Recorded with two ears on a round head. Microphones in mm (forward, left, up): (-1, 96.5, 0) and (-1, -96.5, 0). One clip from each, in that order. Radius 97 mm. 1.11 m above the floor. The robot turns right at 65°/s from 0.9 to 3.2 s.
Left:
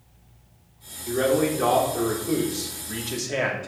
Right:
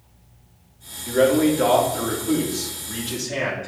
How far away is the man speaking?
About 3 m.